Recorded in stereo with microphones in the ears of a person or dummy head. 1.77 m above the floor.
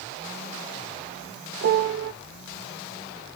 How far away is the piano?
About 0.5 m.